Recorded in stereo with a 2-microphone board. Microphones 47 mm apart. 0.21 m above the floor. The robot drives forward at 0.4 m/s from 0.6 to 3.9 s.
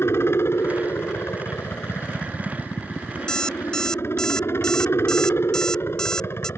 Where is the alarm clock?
15° left (ahead or behind).